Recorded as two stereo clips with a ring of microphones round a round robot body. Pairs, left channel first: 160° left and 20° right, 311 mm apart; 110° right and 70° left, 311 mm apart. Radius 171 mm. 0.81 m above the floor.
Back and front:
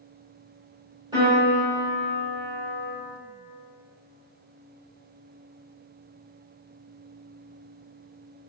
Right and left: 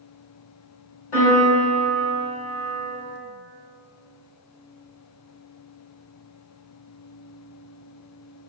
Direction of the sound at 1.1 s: 100° right.